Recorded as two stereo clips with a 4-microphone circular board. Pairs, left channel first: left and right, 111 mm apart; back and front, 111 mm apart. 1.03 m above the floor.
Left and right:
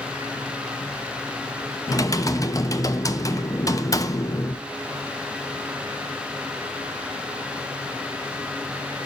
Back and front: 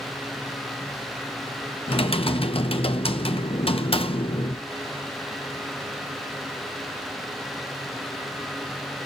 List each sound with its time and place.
1.9 s typing on a keyboard: 150° left, 0.8 m